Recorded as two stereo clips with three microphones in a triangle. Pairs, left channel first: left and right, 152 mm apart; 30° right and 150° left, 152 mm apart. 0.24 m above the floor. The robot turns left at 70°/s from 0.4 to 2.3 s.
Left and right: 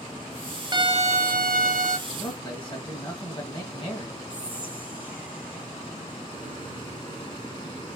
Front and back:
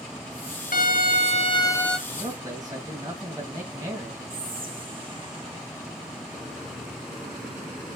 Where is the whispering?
160° right, 1.7 m.